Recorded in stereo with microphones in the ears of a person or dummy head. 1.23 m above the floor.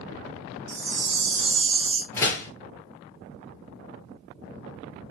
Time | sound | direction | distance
0.7 | a chime | 60° right (ahead or behind) | 0.8 m
2.1 | a door slam | 20° left (ahead or behind) | 0.8 m